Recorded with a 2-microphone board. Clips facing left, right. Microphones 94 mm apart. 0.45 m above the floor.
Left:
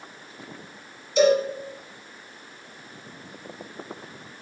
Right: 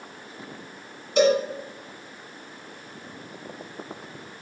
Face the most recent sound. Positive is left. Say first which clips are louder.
# left 1 dB
turn(degrees=-60)  # may be behind; listen again after turning